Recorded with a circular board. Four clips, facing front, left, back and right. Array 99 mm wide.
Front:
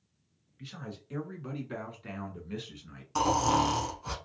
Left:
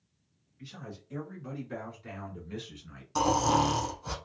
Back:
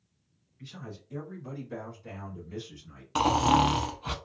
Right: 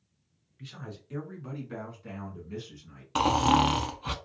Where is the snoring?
120° right, 0.6 m.